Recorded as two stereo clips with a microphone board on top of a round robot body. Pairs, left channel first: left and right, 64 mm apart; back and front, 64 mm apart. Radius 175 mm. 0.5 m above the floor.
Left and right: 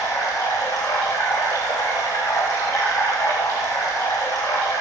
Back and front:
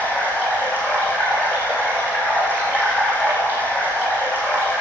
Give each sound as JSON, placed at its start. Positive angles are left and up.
{"t": 0.0, "sound": "running water", "azimuth_deg": 120, "distance_m": 7.5}